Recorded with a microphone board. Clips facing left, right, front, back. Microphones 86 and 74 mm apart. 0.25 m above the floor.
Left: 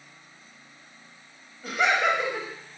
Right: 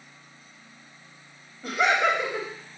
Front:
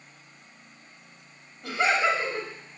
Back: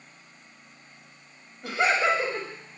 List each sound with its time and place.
1.6 s laughter: straight behind, 1.3 m